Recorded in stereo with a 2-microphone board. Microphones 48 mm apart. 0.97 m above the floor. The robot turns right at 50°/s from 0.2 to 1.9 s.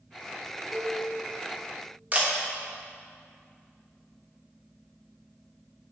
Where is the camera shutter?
30° right (ahead or behind), 1.2 m.